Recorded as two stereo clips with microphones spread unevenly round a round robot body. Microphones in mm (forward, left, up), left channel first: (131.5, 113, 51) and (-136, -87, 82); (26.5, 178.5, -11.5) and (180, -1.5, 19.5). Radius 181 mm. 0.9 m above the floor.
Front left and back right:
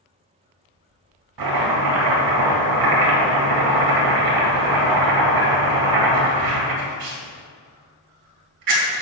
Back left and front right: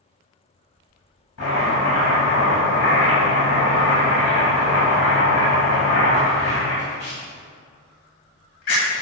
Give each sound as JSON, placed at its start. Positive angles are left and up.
{"t": 1.4, "sound": "chopping", "azimuth_deg": -175, "distance_m": 2.0}